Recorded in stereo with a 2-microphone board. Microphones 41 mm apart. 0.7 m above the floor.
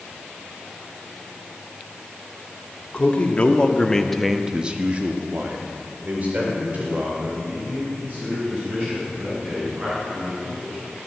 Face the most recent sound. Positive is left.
turn(degrees=-40)  # may be behind; listen again after turning